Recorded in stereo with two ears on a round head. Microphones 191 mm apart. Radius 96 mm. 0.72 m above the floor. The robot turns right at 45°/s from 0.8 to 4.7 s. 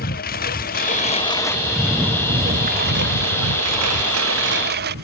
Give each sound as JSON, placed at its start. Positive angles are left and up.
{"t": 0.0, "sound": "a lawn mower", "azimuth_deg": 135}